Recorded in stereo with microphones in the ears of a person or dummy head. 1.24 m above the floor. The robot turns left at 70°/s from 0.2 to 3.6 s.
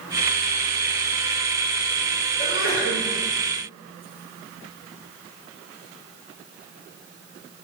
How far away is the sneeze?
About 5.5 m.